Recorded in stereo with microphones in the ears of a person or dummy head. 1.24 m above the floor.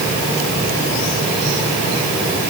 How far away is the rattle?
I don't hear a rattle.